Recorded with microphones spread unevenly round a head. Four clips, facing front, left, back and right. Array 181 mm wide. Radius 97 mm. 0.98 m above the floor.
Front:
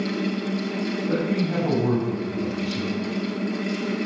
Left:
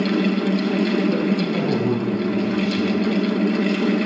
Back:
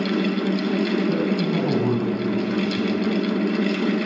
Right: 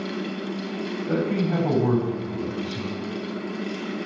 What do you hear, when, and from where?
0.0 s a fan: 115° left, 0.7 m
1.1 s a man speaking: 55° right, 6.5 m